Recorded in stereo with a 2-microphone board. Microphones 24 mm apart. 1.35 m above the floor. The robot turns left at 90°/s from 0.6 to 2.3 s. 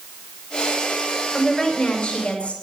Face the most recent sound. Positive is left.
turn(degrees=115)